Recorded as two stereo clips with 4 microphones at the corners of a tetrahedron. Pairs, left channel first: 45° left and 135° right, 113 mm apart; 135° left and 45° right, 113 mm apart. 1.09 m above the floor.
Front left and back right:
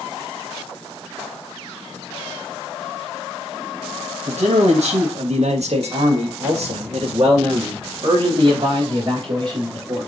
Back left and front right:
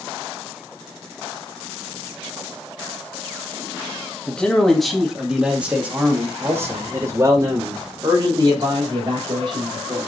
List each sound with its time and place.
4.3 s a man speaking: 145° right, 1.8 m; by 10.1 s 90° right, 3.5 m